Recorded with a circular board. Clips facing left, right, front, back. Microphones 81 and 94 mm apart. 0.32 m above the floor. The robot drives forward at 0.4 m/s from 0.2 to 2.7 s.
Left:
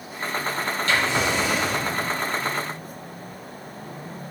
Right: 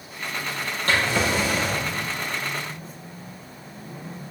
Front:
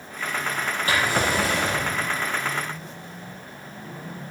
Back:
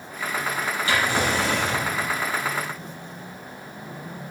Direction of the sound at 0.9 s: 45° right.